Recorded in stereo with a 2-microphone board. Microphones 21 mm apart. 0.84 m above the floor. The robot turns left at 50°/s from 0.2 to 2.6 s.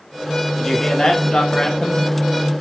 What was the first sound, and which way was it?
A man speaking, 160° left.